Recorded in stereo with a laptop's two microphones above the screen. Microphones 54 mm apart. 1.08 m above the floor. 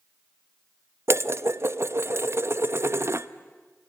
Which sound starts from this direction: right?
Dishes clattering, at 1.1 s.